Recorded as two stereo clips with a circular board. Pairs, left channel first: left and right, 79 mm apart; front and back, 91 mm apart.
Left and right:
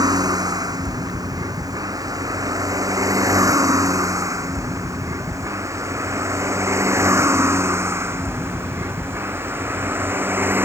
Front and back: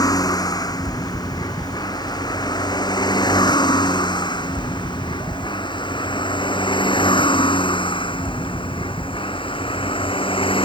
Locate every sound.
0.0 s a vehicle: 50° right; by 10.7 s 25° right